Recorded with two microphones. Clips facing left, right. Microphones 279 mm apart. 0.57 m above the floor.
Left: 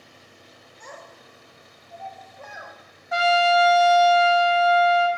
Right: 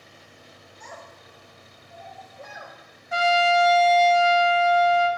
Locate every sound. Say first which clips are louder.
0.8 s a child speaking: left 1 dB; 55° left (ahead or behind), 1.2 m; by 2.7 s 35° right (ahead or behind), 1.6 m
3.1 s a trumpet: left 1 dB; 30° right (ahead or behind), 0.6 m